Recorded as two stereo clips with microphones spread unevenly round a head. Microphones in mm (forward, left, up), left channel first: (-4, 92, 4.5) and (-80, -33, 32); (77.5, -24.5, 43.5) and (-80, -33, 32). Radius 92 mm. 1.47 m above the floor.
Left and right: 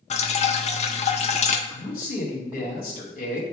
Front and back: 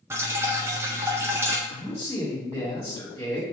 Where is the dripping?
105° left, 0.8 m.